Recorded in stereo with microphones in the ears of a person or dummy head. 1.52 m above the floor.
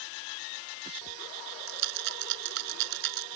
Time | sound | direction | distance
1.7 | a rattle | 70° right (ahead or behind) | ?